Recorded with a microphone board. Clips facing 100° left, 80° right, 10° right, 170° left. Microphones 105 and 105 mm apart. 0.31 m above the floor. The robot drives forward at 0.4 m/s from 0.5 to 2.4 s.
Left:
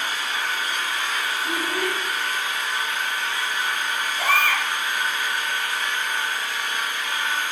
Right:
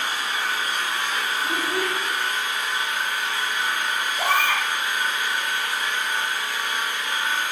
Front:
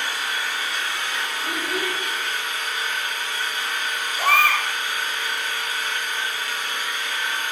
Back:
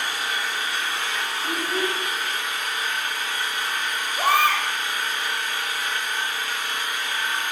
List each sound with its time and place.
0.0 s an engine running: 120° right, 1.2 m; by 7.5 s 145° right, 1.7 m
1.4 s a child speaking: 60° right, 0.9 m; by 2.0 s 80° right, 0.8 m
4.2 s a baby crying: 130° right, 0.6 m